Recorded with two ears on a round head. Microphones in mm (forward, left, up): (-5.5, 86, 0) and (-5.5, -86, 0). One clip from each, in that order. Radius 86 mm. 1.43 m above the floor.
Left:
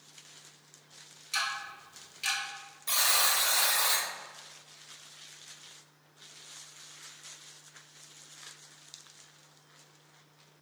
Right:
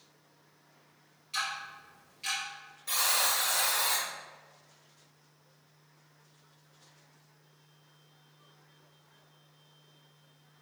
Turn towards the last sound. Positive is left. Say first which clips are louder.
# left 2 dB
turn(degrees=20)  # may be behind; listen again after turning